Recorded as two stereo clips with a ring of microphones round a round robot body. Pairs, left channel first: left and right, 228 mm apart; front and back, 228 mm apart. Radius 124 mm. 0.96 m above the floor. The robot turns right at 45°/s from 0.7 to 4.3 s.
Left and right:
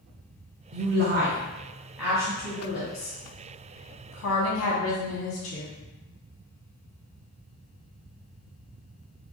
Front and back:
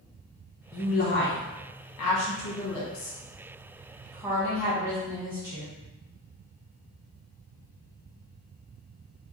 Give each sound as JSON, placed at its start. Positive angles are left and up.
{"t": 0.7, "sound": "a woman speaking", "azimuth_deg": -55, "distance_m": 0.7}